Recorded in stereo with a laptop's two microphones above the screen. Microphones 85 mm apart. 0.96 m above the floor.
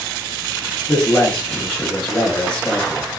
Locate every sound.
0.9 s a man speaking: 10° left (ahead or behind), 1.0 m